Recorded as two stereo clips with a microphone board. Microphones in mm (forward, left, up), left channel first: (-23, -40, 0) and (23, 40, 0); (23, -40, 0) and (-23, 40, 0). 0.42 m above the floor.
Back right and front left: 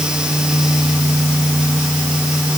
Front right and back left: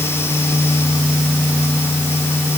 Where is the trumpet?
I don't hear a trumpet.